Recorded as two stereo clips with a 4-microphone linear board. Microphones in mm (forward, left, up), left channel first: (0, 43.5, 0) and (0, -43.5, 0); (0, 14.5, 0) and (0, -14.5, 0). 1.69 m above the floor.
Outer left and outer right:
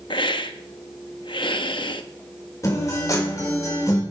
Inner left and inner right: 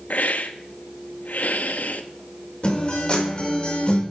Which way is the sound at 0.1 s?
70° left (ahead or behind).